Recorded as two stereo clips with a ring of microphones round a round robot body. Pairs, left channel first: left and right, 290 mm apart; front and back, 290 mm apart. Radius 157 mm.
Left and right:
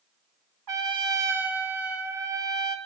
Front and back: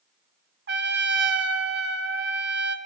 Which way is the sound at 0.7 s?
125° right.